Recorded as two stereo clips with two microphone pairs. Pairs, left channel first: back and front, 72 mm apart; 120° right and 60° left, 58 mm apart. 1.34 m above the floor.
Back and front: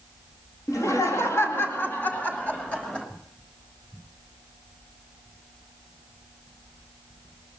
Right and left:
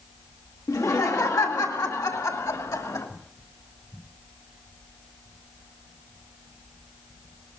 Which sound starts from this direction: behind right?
Laughter, at 0.7 s.